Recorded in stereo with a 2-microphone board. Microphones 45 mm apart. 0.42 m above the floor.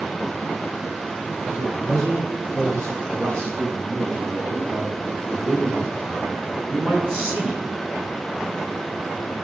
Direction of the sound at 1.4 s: 75° right (ahead or behind).